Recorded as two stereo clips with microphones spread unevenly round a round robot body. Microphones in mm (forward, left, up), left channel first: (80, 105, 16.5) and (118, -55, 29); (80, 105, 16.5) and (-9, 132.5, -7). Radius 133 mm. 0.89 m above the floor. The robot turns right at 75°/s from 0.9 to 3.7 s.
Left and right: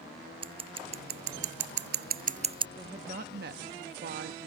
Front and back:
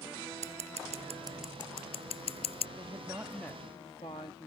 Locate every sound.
0.4 s scissors: 150° right; by 2.7 s 15° right
2.8 s a woman speaking: 155° right; by 4.5 s 85° right